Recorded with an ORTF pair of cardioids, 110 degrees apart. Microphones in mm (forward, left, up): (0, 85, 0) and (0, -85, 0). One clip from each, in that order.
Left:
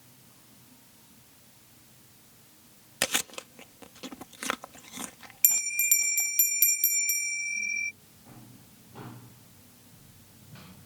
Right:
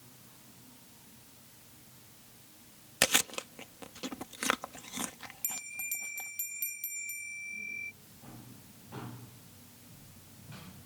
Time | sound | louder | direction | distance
3.0 | chewing | right 1 dB | 10° right | ?
5.4 | a bell | left 13 dB | 65° left | ?